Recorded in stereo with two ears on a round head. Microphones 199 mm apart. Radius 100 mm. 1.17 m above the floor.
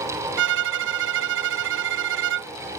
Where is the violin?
50° right (ahead or behind).